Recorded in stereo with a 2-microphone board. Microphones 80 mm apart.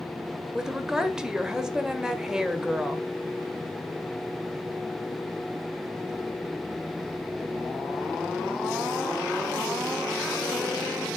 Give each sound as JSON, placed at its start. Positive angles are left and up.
{"t": 0.5, "sound": "a woman speaking", "side_deg": -5, "distance_m": 1.2}